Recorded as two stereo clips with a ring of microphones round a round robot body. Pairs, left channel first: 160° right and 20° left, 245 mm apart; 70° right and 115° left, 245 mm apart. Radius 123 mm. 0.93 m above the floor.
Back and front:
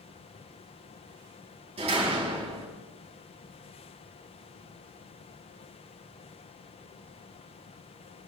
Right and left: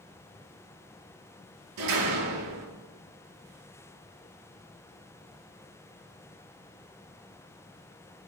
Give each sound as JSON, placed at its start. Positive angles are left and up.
{"t": 1.8, "sound": "a door slam", "azimuth_deg": 90, "distance_m": 6.5}